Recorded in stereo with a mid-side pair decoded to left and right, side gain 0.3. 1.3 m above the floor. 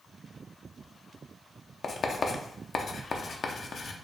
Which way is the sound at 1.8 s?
65° left.